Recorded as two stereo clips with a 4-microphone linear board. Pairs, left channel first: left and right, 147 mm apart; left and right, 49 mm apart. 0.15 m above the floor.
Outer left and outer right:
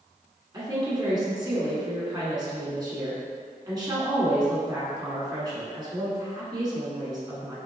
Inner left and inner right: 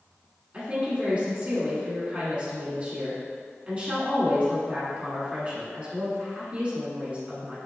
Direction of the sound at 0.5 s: 30° right (ahead or behind).